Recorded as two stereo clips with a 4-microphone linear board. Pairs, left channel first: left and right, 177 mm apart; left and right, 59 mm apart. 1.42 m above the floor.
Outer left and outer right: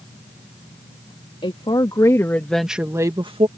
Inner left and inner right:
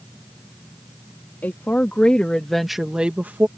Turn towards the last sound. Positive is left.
turn(degrees=-35)  # may be behind; listen again after turning